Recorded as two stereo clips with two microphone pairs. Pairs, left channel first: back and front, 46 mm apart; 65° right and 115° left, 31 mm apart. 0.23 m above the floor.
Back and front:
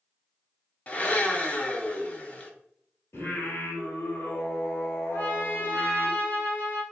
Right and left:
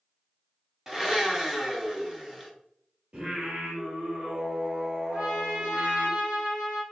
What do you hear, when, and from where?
0.9 s a blender: 175° left, 0.8 m
3.1 s singing: 160° left, 2 m
5.1 s a trumpet: 135° left, 2 m